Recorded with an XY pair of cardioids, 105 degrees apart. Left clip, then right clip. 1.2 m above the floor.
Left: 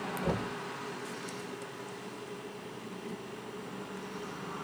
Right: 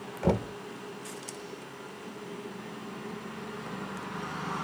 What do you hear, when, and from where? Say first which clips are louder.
0.2 s knocking: right 8 dB; 55° right, 0.7 m